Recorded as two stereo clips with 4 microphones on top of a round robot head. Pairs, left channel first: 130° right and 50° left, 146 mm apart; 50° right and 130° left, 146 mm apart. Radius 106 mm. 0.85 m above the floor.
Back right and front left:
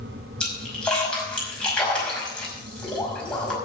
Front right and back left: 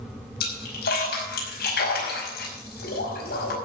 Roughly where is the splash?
Ahead right.